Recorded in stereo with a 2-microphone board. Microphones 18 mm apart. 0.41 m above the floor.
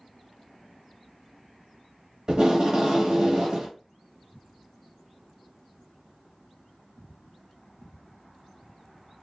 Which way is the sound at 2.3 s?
45° right (ahead or behind).